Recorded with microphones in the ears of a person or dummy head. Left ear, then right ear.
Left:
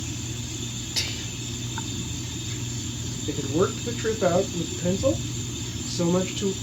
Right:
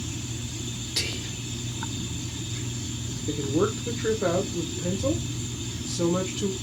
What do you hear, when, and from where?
1.0 s whispering: 5° left (ahead or behind), 2.5 m
3.3 s a woman speaking: 10° left (ahead or behind), 1.0 m